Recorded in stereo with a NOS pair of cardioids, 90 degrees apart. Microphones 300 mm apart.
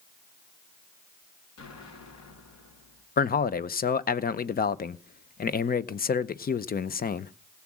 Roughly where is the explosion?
Ahead left.